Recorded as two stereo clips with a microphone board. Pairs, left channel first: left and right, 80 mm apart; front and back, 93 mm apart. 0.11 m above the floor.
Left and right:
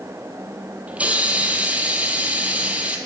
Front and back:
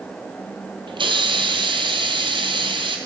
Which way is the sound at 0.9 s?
160° right.